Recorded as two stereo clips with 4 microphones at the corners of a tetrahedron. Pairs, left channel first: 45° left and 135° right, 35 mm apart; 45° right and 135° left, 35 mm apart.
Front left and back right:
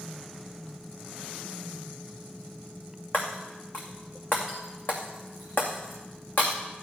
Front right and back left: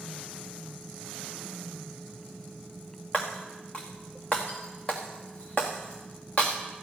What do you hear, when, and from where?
3.1 s breaking glass: 15° left, 2.5 m